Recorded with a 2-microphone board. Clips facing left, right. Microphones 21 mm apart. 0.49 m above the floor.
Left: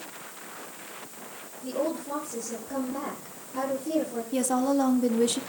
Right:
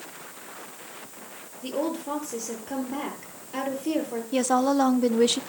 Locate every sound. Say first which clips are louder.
1.6 s a woman speaking: right 1 dB; 55° right (ahead or behind), 9.5 m
4.3 s a woman speaking: right 3 dB; 30° right (ahead or behind), 0.8 m